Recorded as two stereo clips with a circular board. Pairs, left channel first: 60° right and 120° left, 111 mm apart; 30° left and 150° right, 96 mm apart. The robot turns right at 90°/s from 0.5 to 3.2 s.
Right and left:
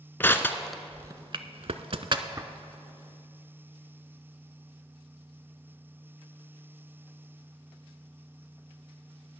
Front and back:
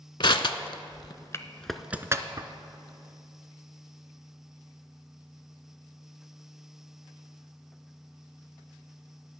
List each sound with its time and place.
0.2 s crushing: 10° left, 0.5 m; by 2.5 s 175° right, 0.5 m